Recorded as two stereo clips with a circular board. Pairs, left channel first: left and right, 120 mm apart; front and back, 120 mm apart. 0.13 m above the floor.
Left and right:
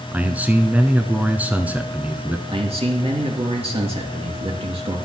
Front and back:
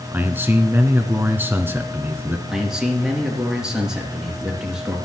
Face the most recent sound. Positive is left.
turn(degrees=-95)